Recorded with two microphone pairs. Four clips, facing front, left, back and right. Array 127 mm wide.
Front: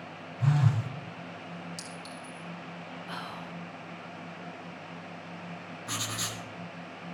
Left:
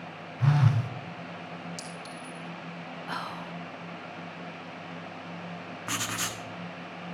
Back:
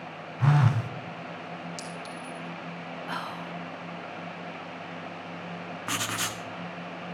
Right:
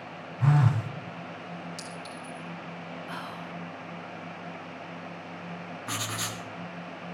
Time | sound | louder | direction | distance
0.4 | a phone buzzing | right 1 dB, back 4 dB | 170° right | 0.9 m
1.8 | a clink | right 1 dB, back 5 dB | 140° right | 2.5 m
3.1 | whispering | left 5 dB, back 5 dB | 145° left | 1.9 m
5.9 | writing | left 1 dB, back 5 dB | 170° left | 1.4 m